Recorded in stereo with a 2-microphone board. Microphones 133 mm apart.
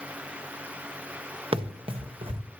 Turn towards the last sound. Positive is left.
turn(degrees=-45)  # may be behind; listen again after turning